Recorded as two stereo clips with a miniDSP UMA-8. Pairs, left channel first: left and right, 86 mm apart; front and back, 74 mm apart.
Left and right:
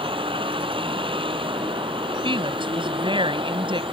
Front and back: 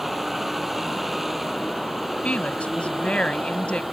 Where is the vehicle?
90° right; by 3.9 s 95° right.